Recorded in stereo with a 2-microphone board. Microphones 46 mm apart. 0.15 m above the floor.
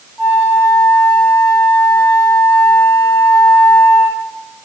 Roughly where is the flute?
Centre.